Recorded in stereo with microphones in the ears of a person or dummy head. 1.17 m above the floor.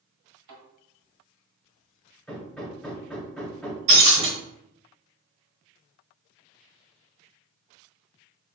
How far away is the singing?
I don't hear singing.